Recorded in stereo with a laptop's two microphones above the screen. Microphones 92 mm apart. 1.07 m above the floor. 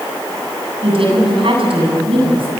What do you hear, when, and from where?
0.8 s a woman speaking: 70° right (ahead or behind), 8 m